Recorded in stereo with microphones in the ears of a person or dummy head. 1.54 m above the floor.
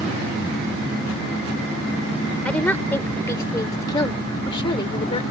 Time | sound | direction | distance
2.5 | a woman speaking | 15° left (ahead or behind) | ?